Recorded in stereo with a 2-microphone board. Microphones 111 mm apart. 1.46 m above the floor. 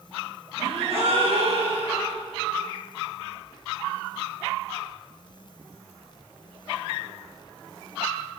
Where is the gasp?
60° right (ahead or behind), 4 m.